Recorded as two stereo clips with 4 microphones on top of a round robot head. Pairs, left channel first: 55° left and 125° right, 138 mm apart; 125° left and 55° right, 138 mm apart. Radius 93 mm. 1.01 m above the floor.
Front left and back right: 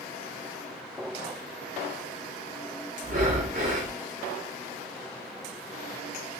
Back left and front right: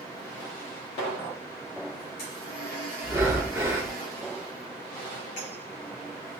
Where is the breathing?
120° right, 0.6 m.